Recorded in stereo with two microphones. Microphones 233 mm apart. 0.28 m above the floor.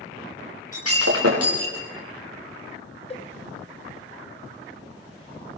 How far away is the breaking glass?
About 6.5 m.